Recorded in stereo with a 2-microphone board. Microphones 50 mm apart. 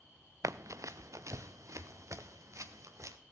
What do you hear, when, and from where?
0.4 s running footsteps: 80° right, 0.6 m